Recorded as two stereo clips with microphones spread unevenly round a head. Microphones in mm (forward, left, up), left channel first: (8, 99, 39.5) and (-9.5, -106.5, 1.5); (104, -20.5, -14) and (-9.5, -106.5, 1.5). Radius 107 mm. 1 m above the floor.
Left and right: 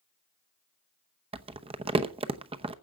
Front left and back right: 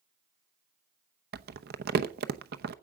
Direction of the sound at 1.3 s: 155° right.